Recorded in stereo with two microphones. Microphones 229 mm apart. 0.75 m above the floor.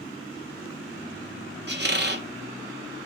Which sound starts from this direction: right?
A squeak, at 1.7 s.